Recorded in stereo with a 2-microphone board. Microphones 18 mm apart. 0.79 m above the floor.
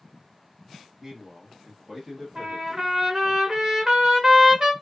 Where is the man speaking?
15° right (ahead or behind), 1.2 m; by 3.4 s centre (ahead or behind), 1.5 m.